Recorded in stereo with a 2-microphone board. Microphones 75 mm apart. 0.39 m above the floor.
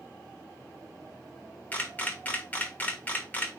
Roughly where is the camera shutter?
Left.